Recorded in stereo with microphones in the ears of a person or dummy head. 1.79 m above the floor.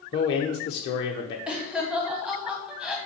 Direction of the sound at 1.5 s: 5° right (ahead or behind).